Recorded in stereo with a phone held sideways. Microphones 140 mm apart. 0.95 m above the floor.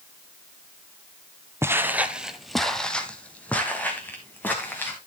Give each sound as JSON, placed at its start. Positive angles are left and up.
{"t": 1.6, "sound": "footsteps", "side_deg": -20, "distance_m": 1.0}